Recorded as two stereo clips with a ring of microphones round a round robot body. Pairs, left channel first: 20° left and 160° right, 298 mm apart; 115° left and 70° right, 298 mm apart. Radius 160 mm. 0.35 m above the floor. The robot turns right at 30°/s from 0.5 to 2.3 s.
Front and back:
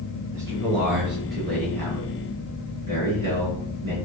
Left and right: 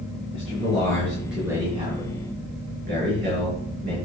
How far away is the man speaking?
About 6.5 m.